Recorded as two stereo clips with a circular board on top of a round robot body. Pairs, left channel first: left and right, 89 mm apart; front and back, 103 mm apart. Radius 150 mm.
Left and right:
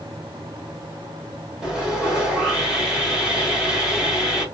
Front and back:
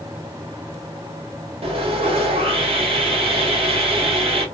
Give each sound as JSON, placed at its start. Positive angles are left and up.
{"t": 1.6, "sound": "sawing", "azimuth_deg": -175, "distance_m": 1.4}